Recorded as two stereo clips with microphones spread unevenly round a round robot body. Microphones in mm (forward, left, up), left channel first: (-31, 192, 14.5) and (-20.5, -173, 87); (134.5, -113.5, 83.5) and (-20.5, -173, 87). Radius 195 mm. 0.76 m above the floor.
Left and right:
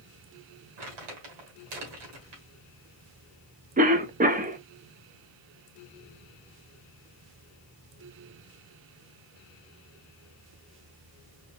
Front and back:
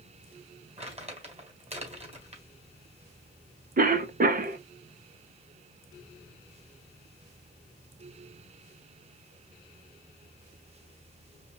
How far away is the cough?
About 0.8 m.